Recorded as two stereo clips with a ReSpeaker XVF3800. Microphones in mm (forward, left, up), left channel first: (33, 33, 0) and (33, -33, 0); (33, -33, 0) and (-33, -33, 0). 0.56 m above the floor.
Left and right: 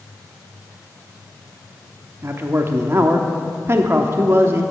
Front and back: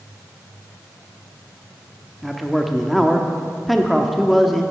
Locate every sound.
2.2 s a man speaking: 90° right, 0.7 m